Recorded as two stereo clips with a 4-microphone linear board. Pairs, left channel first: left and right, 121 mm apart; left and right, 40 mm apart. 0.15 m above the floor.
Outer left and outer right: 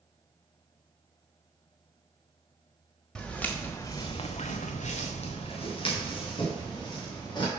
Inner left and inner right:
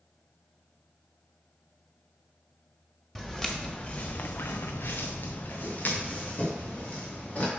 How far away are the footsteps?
About 1.4 m.